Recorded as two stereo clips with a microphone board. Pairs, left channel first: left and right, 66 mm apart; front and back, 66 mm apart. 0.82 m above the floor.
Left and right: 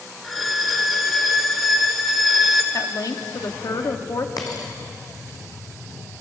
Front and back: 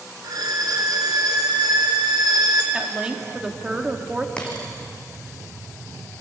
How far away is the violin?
About 3 m.